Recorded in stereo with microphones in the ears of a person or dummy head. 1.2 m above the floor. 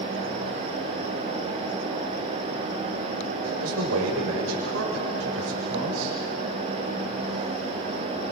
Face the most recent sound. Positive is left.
turn(degrees=-80)